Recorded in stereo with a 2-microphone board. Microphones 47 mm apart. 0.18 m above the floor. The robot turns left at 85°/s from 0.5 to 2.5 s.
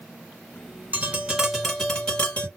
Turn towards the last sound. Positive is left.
turn(degrees=110)